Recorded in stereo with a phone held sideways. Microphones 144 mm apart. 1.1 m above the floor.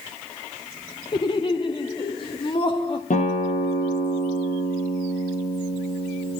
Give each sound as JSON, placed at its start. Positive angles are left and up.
{"t": 1.1, "sound": "laughter", "side_deg": 30, "distance_m": 0.9}
{"t": 3.1, "sound": "a guitar", "side_deg": 65, "distance_m": 8.5}